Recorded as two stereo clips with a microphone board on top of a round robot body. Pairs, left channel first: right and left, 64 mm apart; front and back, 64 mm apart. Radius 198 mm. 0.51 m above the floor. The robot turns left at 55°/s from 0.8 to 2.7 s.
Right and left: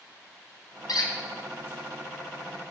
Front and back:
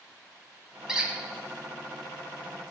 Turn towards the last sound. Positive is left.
turn(degrees=160)